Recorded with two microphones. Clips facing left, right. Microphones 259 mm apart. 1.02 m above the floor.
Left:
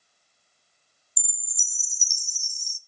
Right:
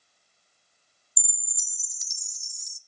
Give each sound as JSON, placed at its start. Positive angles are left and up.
{"t": 1.2, "sound": "a chime", "side_deg": 35, "distance_m": 0.6}